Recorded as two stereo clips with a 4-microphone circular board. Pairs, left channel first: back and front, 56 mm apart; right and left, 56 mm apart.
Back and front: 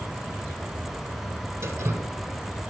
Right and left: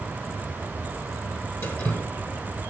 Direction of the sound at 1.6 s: 45° right.